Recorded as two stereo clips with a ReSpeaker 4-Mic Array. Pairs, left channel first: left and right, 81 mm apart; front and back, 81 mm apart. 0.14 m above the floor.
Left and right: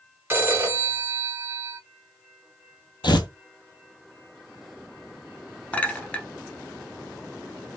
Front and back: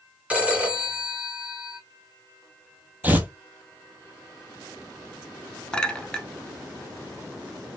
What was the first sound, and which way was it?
A phone ringing, 125° right.